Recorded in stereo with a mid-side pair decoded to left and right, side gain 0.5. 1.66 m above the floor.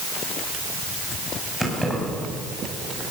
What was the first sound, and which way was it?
Keys jangling, 10° right.